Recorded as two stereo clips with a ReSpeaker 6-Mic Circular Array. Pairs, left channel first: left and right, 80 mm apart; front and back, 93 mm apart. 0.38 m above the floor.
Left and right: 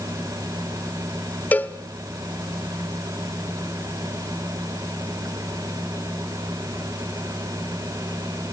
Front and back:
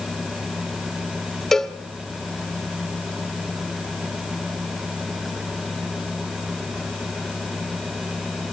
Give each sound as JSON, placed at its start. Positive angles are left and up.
{"t": 1.5, "sound": "a cowbell", "azimuth_deg": 80, "distance_m": 1.2}